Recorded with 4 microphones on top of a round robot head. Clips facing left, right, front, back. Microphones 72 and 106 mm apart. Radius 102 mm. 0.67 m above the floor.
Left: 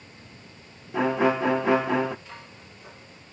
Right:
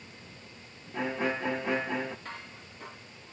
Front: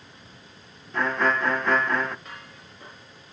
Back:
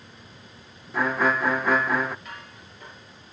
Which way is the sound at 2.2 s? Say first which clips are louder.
Right 1 dB, back 1 dB; 60° right.